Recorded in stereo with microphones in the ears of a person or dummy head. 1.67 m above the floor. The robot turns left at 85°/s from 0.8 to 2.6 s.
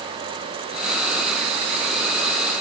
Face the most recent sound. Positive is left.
No sound to turn to.